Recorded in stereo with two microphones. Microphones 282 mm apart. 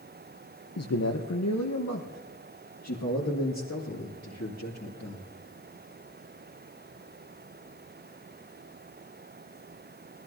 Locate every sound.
0.8 s a man speaking: 60° left (ahead or behind), 0.8 m; by 5.3 s 65° left (ahead or behind), 3 m